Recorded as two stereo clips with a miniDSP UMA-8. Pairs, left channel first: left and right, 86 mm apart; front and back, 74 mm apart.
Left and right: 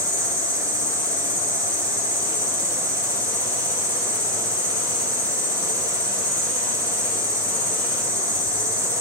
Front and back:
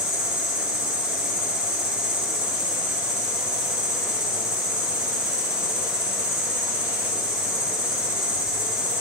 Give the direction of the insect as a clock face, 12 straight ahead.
7 o'clock.